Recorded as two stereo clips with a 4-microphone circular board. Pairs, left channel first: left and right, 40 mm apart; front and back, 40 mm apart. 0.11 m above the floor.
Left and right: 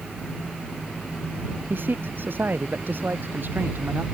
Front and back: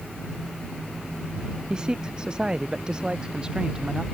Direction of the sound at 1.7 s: 115° right.